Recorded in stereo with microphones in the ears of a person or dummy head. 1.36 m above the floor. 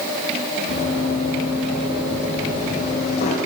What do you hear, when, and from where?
0.7 s running footsteps: 55° left (ahead or behind), 6.5 m; by 3.4 s 45° left (ahead or behind), 5 m